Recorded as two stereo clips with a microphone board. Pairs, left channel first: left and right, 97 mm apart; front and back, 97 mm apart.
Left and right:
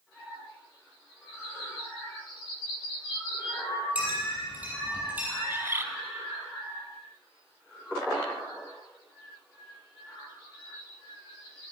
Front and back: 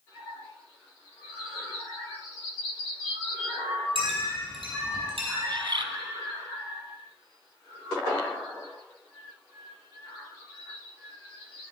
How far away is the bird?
About 0.5 m.